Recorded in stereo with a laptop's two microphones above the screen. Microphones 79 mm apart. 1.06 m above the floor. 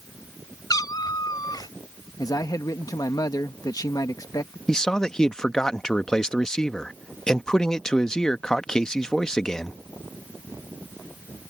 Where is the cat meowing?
55° left (ahead or behind).